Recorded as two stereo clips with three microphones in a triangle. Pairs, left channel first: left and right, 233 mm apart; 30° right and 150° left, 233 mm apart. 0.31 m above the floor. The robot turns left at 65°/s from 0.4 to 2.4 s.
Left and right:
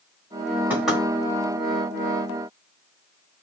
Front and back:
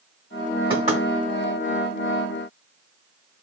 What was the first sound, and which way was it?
Knocking, 165° right.